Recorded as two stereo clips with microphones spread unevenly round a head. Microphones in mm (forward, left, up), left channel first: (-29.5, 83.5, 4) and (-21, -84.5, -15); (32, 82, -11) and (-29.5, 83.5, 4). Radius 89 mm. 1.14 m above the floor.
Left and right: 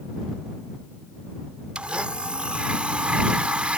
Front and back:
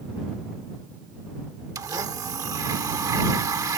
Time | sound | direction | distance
1.8 | a blender | 175° right | ?